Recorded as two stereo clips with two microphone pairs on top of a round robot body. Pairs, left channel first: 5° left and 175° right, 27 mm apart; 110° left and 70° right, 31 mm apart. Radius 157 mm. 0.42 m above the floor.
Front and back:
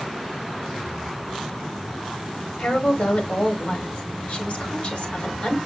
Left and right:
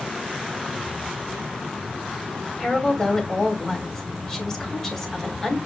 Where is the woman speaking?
40° left, 3 m.